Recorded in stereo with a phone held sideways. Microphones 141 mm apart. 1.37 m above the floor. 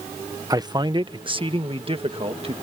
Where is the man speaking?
25° right (ahead or behind); by 2.5 s 40° right (ahead or behind).